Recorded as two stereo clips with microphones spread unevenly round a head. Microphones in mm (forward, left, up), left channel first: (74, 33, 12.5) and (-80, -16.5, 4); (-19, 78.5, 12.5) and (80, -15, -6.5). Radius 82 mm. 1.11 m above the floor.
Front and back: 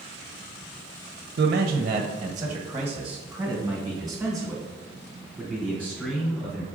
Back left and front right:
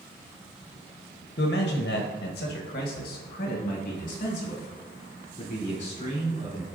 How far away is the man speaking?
About 0.6 m.